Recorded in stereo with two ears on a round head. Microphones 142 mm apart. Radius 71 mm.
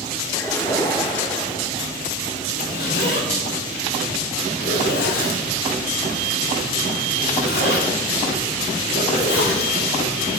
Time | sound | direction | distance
0.3 | a splash | 20° left (ahead or behind) | 6 m
2.5 | a zipper | 70° left (ahead or behind) | 2.5 m